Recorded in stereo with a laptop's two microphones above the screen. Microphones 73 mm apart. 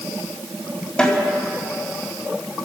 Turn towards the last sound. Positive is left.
turn(degrees=15)  # may be behind; listen again after turning